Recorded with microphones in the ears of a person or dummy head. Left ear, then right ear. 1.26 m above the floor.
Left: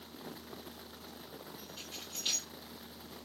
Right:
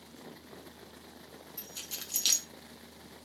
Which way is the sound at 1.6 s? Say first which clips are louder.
Right 6 dB; 65° right (ahead or behind).